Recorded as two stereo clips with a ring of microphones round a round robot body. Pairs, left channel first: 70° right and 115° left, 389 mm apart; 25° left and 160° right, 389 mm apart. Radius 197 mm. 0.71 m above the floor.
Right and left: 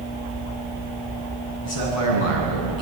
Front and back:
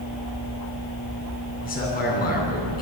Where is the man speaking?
45° right, 6.5 m.